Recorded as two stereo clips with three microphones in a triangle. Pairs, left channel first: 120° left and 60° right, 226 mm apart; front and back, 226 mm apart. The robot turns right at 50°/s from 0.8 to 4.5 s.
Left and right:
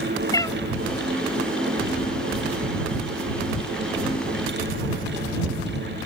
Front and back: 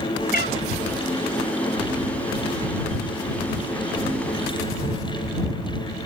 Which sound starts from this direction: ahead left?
A cat meowing, at 0.3 s.